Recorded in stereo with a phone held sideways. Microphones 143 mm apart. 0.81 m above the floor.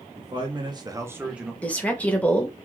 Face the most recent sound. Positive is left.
turn(degrees=10)  # may be behind; listen again after turning